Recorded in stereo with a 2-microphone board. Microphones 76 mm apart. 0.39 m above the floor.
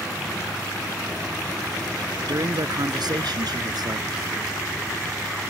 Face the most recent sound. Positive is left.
turn(degrees=-65)  # may be behind; listen again after turning